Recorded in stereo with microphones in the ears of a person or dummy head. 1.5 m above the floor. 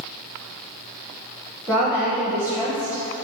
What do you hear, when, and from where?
1.7 s a woman speaking: 5° right (ahead or behind), 0.8 m